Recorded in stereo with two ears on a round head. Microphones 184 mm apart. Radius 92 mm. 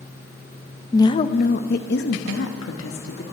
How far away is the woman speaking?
About 0.5 m.